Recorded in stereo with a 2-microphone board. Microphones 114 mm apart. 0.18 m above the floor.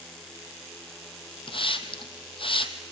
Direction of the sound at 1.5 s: 50° left (ahead or behind).